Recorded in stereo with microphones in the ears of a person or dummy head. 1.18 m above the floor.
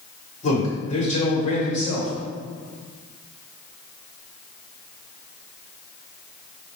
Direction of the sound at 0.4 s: 35° left (ahead or behind).